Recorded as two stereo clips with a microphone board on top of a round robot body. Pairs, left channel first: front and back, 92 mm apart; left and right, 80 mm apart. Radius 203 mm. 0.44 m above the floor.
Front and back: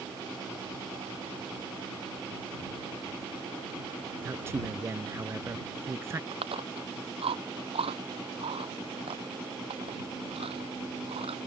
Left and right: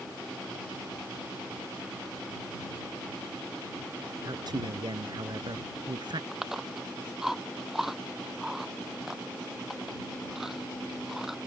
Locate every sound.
4.2 s a man speaking: 115° right
6.3 s chewing: 175° right